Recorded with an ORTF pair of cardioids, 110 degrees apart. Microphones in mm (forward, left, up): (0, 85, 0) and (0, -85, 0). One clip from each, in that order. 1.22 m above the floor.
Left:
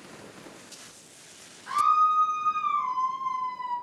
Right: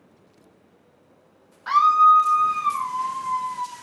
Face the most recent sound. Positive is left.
turn(degrees=-25)